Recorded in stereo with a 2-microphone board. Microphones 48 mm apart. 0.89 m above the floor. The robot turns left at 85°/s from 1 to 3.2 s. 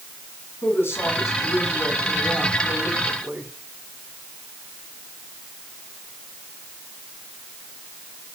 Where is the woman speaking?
130° left, 8 m; by 3.5 s 60° right, 8 m.